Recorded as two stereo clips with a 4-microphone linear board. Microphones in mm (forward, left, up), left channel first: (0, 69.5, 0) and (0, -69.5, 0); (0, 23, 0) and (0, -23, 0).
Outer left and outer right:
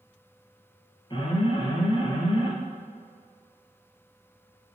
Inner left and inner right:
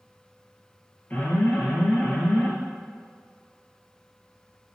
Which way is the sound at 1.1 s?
35° left (ahead or behind).